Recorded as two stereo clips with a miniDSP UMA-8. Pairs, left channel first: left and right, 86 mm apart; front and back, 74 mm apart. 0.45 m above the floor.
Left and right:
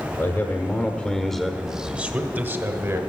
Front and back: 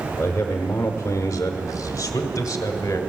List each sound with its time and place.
0.2 s a man speaking: 50° left, 1.2 m; by 3.0 s 40° right, 1.4 m